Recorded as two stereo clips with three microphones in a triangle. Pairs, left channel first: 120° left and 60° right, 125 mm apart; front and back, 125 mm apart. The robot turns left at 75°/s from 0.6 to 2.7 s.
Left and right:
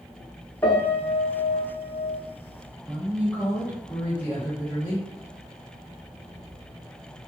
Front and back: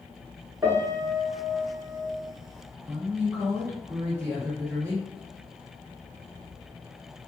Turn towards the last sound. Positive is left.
turn(degrees=175)